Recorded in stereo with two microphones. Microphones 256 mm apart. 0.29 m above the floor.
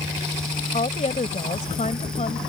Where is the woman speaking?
30° left (ahead or behind).